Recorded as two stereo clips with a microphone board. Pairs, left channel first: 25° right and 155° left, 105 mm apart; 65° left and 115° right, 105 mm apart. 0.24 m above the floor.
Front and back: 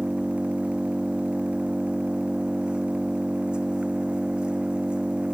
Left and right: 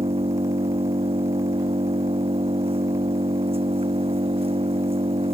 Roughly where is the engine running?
Behind right.